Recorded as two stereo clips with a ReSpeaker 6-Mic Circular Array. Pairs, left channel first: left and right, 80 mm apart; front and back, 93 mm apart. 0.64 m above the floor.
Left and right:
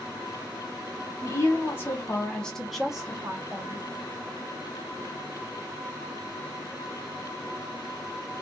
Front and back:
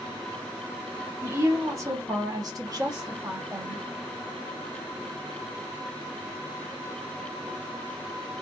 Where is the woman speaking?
125° left, 1.2 m; by 3.9 s 140° right, 1.1 m.